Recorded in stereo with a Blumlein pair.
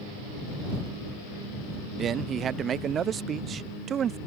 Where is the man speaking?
25° right.